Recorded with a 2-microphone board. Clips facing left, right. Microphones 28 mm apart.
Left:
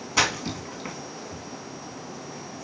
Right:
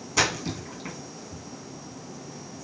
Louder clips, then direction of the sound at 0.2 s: Left 1 dB; 20° left (ahead or behind).